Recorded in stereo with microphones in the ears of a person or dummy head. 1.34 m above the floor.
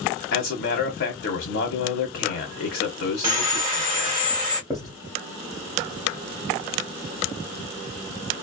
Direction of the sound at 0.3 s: 45° left (ahead or behind).